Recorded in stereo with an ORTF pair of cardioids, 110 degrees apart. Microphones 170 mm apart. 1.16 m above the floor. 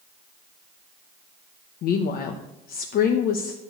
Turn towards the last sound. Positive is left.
turn(degrees=65)